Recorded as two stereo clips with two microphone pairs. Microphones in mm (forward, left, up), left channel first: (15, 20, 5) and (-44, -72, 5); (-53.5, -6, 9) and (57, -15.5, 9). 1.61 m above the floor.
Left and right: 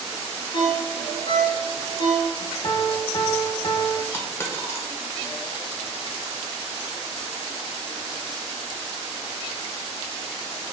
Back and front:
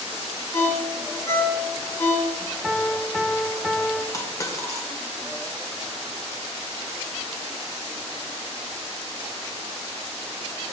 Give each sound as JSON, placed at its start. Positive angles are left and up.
{"t": 0.5, "sound": "a ringtone", "azimuth_deg": 105, "distance_m": 2.0}
{"t": 2.6, "sound": "a piano", "azimuth_deg": 90, "distance_m": 0.7}
{"t": 4.1, "sound": "a dropped coin", "azimuth_deg": 120, "distance_m": 1.9}